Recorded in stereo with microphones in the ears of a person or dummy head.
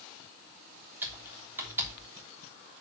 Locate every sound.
1.0 s typing on a keyboard: 15° right (ahead or behind), 3 m